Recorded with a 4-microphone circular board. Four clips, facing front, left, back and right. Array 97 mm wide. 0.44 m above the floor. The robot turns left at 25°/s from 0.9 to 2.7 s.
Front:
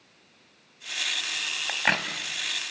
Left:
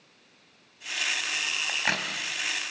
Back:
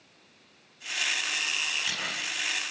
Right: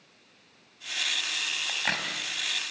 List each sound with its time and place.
1.7 s a crack: 10° left, 2.5 m; by 2.1 s straight ahead, 2.5 m